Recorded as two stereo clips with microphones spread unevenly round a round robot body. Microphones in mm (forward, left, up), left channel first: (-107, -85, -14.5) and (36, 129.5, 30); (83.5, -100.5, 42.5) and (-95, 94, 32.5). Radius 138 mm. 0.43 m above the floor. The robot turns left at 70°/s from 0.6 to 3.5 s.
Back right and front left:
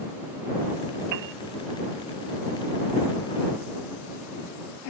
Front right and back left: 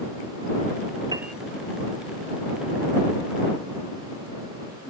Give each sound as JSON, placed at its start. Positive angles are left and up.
{"t": 1.1, "sound": "a piano", "azimuth_deg": 55}